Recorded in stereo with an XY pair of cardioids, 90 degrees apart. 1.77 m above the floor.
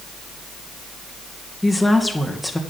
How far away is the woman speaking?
About 2 m.